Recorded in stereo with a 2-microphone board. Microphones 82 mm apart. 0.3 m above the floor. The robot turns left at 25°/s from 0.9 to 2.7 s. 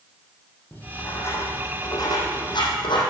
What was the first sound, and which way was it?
Writing, 20° left (ahead or behind).